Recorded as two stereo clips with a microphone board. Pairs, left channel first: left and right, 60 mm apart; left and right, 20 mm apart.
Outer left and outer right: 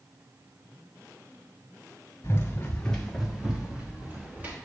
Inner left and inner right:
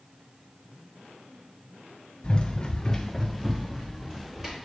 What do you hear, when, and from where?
2.2 s running footsteps: 40° left (ahead or behind), 1.8 m; by 4.5 s 30° right (ahead or behind), 3.5 m